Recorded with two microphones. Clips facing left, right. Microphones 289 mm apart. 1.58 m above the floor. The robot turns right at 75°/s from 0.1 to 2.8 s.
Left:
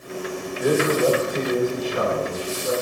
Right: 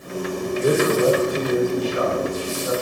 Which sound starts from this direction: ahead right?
A man speaking, at 0.6 s.